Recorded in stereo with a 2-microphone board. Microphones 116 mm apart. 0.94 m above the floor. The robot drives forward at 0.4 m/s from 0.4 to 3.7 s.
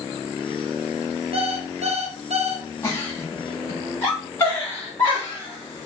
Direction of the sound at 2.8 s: 25° left (ahead or behind).